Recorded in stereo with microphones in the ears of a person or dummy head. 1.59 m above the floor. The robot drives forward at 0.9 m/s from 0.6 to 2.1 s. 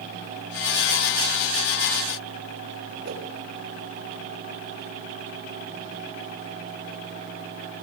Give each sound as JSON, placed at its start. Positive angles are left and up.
{"t": 3.0, "sound": "a whoosh", "side_deg": -65, "distance_m": 6.0}